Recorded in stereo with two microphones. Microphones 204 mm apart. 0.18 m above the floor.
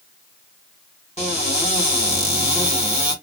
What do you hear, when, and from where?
1.2 s a cupboard door: 30° left (ahead or behind), 1.4 m